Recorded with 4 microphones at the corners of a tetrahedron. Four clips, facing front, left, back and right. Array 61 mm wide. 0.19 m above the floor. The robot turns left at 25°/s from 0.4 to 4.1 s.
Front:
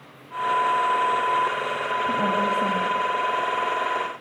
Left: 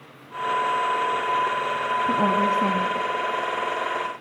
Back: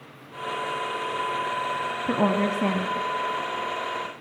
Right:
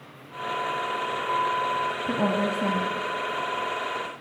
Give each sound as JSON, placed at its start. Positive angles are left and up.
{"t": 2.1, "sound": "a woman speaking", "azimuth_deg": 165, "distance_m": 1.5}